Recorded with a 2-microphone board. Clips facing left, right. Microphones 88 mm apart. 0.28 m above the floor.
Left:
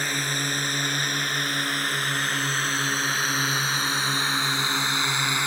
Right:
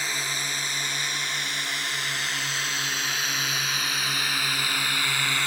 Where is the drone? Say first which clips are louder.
Left 3 dB; 50° left (ahead or behind); by 5.5 s 15° left (ahead or behind).